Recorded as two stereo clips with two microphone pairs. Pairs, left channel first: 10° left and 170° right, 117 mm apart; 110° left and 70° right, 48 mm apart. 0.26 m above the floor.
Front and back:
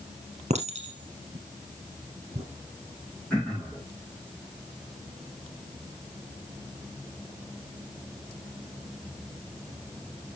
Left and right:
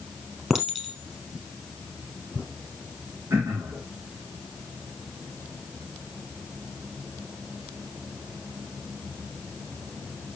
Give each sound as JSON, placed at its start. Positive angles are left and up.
{"t": 0.5, "sound": "a clink", "azimuth_deg": -150, "distance_m": 3.5}
{"t": 3.3, "sound": "throat clearing", "azimuth_deg": -75, "distance_m": 5.0}